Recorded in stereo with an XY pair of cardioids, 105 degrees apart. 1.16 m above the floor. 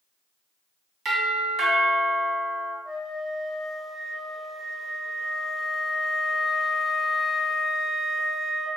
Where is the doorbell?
60° right, 1.6 m.